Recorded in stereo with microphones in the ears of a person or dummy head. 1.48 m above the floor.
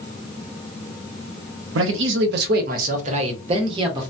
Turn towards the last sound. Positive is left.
turn(degrees=-30)  # may be behind; listen again after turning